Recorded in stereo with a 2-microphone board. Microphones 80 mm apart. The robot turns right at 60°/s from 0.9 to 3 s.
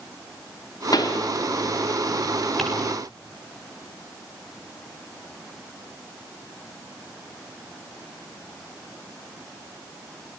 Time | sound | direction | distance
0.9 | a pop | 60° left (ahead or behind) | 3 m
2.6 | ticking | centre (ahead or behind) | 8.5 m